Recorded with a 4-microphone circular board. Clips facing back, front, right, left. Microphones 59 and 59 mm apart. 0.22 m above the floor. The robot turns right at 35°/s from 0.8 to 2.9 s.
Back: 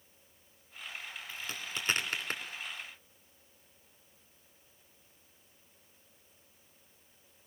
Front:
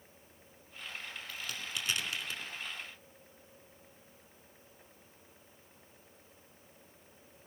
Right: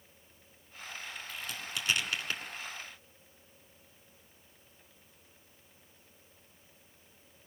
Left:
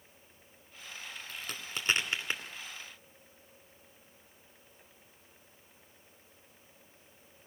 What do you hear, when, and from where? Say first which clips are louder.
1.3 s a crack: back 1 dB, even; 115° left, 2.5 m; by 2.4 s 155° left, 2.5 m